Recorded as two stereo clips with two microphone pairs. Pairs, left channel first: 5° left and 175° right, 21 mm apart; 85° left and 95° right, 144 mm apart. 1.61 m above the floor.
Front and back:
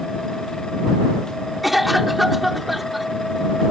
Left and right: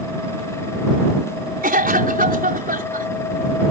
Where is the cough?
90° right.